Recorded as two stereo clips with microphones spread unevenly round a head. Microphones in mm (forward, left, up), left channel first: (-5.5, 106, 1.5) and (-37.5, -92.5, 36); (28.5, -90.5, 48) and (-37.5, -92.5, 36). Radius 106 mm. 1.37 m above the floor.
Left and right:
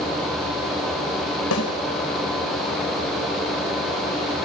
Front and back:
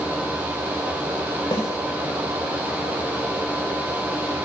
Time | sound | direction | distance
1.5 | a snare drum | 60° left | 5.5 m